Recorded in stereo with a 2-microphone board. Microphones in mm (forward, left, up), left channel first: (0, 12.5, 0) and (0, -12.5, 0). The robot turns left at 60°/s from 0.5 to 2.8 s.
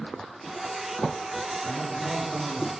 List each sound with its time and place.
1.6 s a man speaking: 110° left, 1.6 m; by 2.7 s 50° left, 1.6 m